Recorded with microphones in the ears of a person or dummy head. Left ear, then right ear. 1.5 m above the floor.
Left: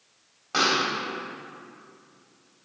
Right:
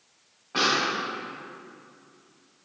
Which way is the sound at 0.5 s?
70° left (ahead or behind).